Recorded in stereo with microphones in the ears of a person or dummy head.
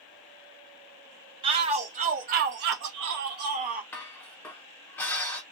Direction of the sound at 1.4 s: 25° right (ahead or behind).